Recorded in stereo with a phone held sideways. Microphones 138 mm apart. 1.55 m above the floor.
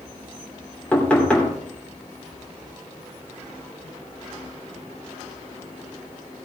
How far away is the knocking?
About 2.5 m.